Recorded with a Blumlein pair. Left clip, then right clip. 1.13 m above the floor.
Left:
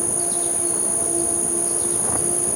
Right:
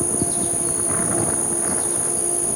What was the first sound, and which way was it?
An insect, straight ahead.